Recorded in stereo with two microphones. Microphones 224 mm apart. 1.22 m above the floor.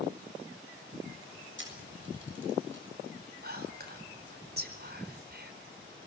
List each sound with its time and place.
1.6 s a camera shutter: 55° right (ahead or behind), 7 m
3.4 s whispering: 45° right (ahead or behind), 4.5 m